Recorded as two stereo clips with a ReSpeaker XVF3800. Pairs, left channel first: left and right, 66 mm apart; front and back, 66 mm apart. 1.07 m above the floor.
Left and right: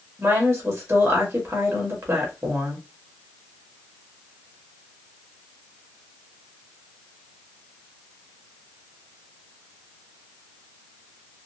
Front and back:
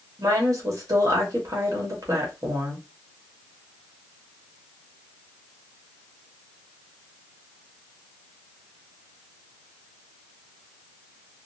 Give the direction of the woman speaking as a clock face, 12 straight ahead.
5 o'clock.